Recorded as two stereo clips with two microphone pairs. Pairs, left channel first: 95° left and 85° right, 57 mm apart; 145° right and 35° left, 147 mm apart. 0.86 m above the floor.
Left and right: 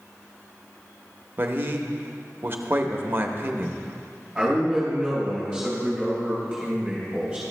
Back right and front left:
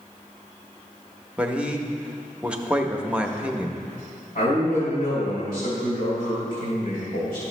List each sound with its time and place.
1.4 s a man speaking: 45° right, 0.7 m
4.3 s a man speaking: 165° right, 3.5 m